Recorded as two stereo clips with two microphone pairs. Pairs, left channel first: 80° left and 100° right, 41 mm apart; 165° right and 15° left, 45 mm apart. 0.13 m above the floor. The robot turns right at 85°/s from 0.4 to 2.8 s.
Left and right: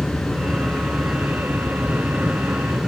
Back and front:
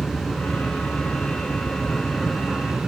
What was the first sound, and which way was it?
An aircraft, 125° left.